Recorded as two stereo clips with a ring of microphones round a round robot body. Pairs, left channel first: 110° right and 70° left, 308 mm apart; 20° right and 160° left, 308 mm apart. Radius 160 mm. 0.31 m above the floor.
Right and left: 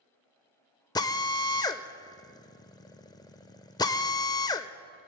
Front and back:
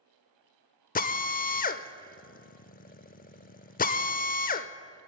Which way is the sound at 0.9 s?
45° right.